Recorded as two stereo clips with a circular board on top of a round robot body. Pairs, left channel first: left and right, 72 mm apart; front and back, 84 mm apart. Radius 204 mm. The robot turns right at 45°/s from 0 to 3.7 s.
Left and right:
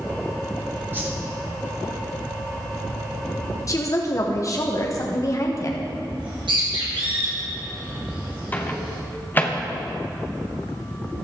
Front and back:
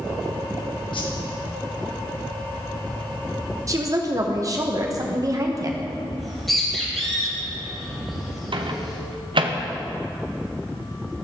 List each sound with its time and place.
0.9 s a whoosh: 30° right, 2.5 m; by 1.1 s 20° right, 2.5 m
3.7 s a woman speaking: 130° left, 1.3 m
6.2 s a bird: 90° right, 3 m
8.5 s a microwave: 155° left, 1.0 m